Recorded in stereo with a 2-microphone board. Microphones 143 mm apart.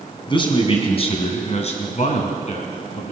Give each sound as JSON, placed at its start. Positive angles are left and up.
{"t": 0.3, "sound": "a man speaking", "side_deg": 35, "distance_m": 2.5}